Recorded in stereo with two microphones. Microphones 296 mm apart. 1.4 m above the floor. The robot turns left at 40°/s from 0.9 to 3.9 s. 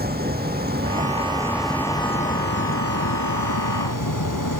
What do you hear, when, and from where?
0.0 s a vehicle: 150° right; by 4.6 s 90° left